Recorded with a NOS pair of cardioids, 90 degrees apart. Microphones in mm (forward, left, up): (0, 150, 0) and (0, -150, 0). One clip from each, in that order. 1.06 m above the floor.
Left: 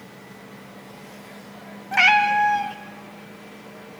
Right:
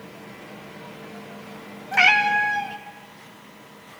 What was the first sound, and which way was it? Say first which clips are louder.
A cat meowing: left 1 dB; 5° left.